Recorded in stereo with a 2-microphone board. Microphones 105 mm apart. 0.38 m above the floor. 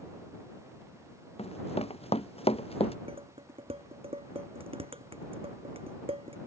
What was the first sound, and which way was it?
Running footsteps, 75° left (ahead or behind).